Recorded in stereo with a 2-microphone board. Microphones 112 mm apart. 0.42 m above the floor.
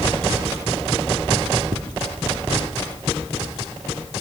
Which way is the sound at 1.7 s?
50° right (ahead or behind).